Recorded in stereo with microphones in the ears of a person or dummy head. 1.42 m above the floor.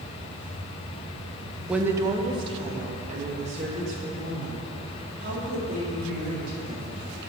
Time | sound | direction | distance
1.7 | a woman speaking | 10° right (ahead or behind) | 0.7 m